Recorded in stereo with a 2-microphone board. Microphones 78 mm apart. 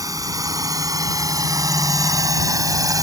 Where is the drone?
50° right (ahead or behind).